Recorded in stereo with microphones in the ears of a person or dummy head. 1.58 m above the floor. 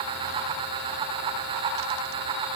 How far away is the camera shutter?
No camera shutter in this recording.